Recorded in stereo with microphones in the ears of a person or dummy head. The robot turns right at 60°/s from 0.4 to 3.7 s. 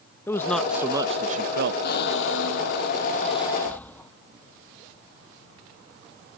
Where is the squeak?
60° left; by 4.1 s 170° left.